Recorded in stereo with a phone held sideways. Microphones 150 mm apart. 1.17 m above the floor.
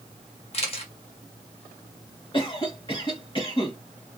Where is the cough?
35° left (ahead or behind), 2.5 m.